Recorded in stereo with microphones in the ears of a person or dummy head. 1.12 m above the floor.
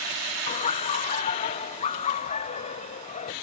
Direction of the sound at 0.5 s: 35° left (ahead or behind).